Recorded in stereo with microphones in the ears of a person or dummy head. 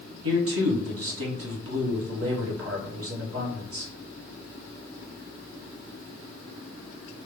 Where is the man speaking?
70° right (ahead or behind), 1.0 m.